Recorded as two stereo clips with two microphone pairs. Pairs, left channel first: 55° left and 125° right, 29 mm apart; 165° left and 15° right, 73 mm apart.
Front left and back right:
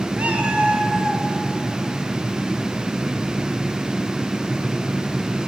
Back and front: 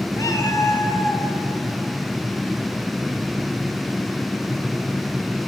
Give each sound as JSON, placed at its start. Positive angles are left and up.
{"t": 0.2, "sound": "a cat meowing", "azimuth_deg": -155, "distance_m": 1.9}